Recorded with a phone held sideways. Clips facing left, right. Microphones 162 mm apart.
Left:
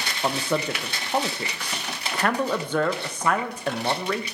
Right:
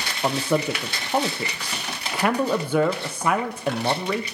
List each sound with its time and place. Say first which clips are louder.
0.2 s a man speaking: right 3 dB; 10° right (ahead or behind), 0.6 m